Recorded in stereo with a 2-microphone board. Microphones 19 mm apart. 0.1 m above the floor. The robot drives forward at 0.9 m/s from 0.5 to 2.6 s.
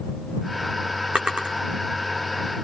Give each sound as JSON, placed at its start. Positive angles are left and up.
{"t": 1.1, "sound": "a drawer", "side_deg": -70, "distance_m": 2.5}